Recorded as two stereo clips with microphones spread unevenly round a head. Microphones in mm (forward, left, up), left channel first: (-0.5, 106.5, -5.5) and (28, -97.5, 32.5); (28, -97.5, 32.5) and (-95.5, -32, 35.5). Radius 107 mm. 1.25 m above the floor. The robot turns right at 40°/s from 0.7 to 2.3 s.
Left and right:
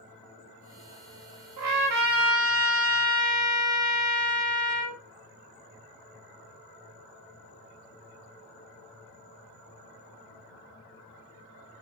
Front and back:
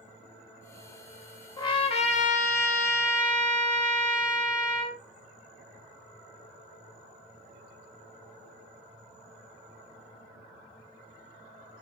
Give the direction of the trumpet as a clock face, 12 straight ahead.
3 o'clock.